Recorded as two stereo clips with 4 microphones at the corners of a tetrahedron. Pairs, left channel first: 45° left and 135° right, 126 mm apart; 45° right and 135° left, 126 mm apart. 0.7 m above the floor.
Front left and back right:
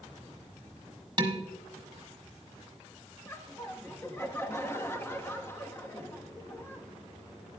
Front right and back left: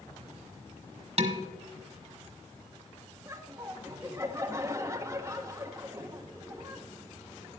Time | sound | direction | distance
1.2 | dishes clattering | 170° left | 1.3 m
3.2 | laughter | 95° left | 1.0 m